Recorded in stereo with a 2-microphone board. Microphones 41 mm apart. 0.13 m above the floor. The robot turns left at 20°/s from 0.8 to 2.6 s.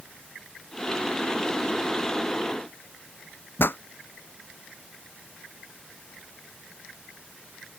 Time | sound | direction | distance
3.6 | a pop | 70° left (ahead or behind) | ?